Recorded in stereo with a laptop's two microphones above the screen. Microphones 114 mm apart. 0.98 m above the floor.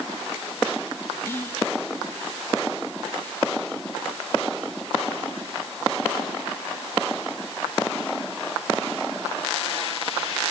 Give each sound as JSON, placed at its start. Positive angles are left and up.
{"t": 1.2, "sound": "whispering", "side_deg": 20, "distance_m": 0.8}